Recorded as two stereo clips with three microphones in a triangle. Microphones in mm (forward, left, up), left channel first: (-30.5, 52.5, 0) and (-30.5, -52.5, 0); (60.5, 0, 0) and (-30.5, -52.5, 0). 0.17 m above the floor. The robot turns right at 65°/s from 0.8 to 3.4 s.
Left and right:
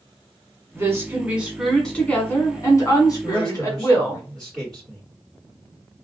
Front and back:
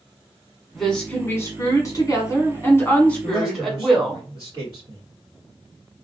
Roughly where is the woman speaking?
Ahead right.